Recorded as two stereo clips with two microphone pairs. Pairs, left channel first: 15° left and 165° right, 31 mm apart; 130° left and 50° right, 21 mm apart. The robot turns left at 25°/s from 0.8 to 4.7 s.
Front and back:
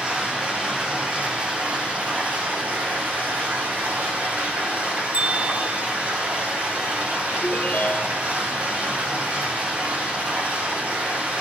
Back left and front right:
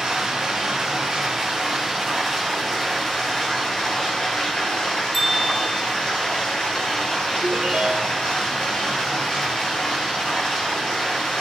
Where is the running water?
100° right, 5.5 m; by 11.4 s 160° left, 5.5 m.